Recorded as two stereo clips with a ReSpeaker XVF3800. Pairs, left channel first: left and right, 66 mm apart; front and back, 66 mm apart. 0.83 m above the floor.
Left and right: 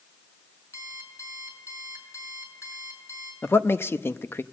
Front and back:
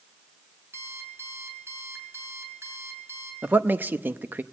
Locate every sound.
0.7 s an alarm clock: 130° left, 5.5 m
3.4 s a man speaking: 130° left, 0.7 m